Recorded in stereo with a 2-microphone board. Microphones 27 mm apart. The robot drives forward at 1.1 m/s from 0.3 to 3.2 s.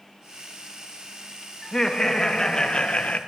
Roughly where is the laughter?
Left.